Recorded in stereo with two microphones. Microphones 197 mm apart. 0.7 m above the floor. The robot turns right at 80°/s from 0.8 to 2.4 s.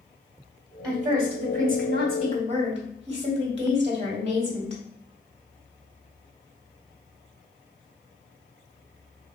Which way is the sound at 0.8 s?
160° right.